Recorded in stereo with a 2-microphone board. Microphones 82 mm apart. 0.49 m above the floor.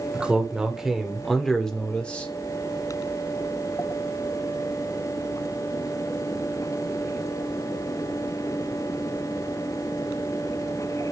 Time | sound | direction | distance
0.1 | a man speaking | 10° right (ahead or behind) | 2 m